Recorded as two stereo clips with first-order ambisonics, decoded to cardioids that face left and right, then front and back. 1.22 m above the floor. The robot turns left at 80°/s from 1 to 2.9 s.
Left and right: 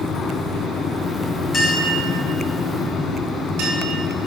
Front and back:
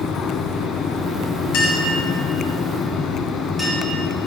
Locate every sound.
1.5 s a clink: 25° left, 2.5 m; by 3.8 s 85° right, 2.5 m